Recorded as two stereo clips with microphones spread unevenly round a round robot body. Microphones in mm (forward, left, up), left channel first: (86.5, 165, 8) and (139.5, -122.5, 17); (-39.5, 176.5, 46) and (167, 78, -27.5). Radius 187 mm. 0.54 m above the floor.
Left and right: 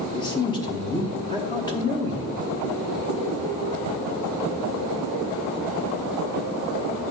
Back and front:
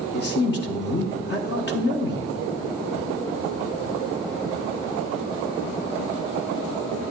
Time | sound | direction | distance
0.1 | a man speaking | 150° left | 1.0 m